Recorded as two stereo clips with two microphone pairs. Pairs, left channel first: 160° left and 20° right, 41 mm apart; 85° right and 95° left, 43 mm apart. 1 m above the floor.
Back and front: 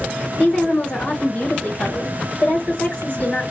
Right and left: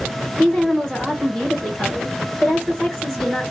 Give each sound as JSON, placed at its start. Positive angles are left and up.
{"t": 0.4, "sound": "a woman speaking", "azimuth_deg": -165, "distance_m": 1.5}